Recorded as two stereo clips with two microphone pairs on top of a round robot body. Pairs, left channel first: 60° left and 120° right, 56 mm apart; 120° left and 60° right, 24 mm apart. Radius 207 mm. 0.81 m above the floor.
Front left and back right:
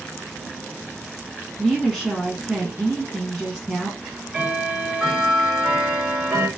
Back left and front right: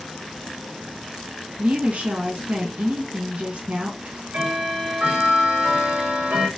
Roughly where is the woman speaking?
Ahead right.